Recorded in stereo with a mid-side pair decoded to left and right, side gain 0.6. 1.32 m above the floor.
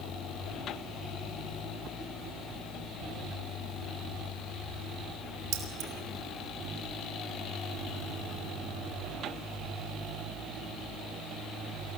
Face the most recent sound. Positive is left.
turn(degrees=-60)